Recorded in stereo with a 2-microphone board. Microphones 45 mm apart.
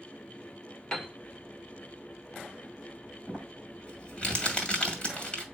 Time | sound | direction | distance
0.9 | a piano | 20° left (ahead or behind) | 1.5 m
3.3 | crumpling | 25° left (ahead or behind) | 2.5 m